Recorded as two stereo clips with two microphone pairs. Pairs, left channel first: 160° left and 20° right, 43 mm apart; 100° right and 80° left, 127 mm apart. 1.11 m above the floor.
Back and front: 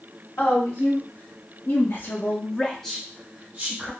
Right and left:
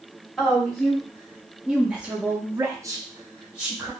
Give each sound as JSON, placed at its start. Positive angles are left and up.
{"t": 0.4, "sound": "a woman speaking", "azimuth_deg": 175, "distance_m": 1.5}